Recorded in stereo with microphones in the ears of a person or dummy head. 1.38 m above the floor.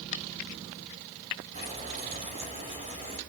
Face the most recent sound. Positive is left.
turn(degrees=-35)  # may be behind; listen again after turning